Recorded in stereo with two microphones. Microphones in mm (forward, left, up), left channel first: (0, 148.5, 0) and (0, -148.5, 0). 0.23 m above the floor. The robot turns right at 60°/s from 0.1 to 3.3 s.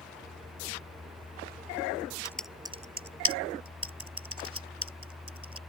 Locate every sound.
2.2 s typing on a keyboard: 10° left (ahead or behind); by 5.6 s 50° right (ahead or behind)